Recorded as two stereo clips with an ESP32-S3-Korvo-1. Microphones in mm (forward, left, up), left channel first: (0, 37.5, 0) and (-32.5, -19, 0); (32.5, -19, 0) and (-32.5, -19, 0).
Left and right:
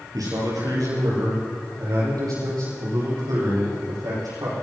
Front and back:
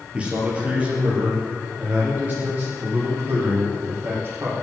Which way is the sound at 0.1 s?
110° right.